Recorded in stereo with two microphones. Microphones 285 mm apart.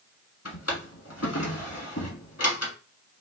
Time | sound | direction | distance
0.5 | a drawer | 60° left (ahead or behind) | 1.1 m